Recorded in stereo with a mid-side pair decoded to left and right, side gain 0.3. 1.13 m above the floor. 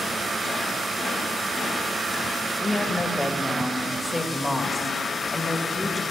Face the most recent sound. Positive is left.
turn(degrees=25)